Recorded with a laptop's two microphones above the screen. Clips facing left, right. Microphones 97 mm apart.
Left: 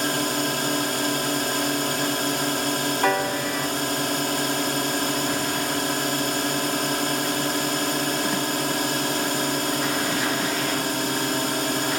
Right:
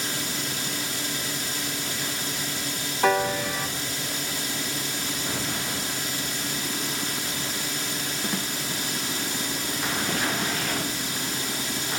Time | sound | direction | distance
0.0 | a drone | 60° left (ahead or behind) | ?
3.0 | a piano | centre (ahead or behind) | ?